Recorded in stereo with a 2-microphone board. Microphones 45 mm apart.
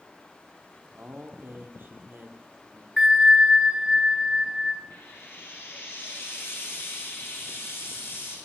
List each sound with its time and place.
1.0 s a man speaking: 50° right (ahead or behind), 2.5 m
3.0 s a bell: 15° right (ahead or behind), 0.7 m
4.9 s frying: 80° left, 6 m